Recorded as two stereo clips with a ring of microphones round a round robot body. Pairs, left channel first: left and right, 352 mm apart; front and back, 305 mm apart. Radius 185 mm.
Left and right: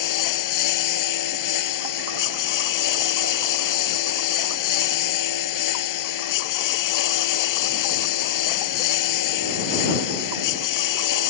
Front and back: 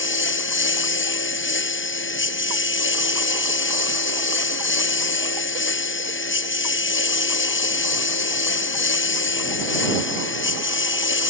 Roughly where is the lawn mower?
Ahead left.